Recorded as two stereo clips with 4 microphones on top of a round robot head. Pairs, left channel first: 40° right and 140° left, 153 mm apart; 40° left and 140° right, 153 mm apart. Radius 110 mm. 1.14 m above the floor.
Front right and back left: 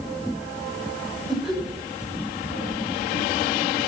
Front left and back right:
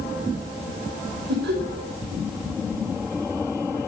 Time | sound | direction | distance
1.3 | laughter | 130° right | 5.5 m